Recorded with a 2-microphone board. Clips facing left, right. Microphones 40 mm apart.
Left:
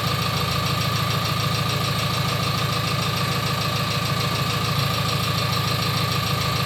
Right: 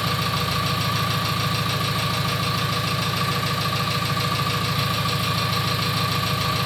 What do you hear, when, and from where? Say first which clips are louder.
0.0 s an engine running: even; 5° right (ahead or behind), 0.8 m